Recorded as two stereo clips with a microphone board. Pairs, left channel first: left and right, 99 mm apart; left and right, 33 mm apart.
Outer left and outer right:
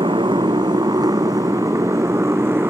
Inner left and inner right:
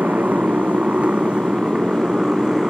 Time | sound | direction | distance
0.0 | a motorcycle | 55° right (ahead or behind) | ?